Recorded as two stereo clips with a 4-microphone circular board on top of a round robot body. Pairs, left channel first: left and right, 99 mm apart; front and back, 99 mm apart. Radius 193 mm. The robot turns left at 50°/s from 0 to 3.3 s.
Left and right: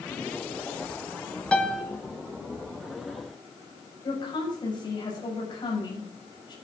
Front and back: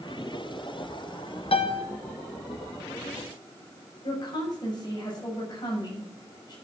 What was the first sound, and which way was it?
A piano, 10° left.